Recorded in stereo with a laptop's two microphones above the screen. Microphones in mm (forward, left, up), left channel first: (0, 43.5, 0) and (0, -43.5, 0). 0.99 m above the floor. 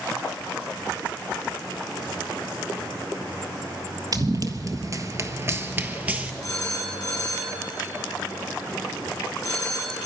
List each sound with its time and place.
4.1 s running footsteps: 45° right (ahead or behind), 1.4 m; by 6.3 s 15° right (ahead or behind), 1.3 m
6.4 s a phone ringing: 40° left (ahead or behind), 6.5 m